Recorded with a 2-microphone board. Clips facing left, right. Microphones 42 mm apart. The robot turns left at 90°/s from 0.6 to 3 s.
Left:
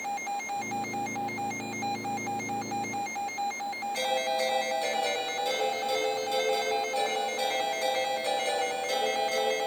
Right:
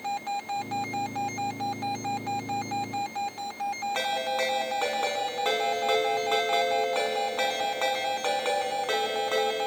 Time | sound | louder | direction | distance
4.0 | a ringtone | left 1 dB | 50° right (ahead or behind) | 4.5 m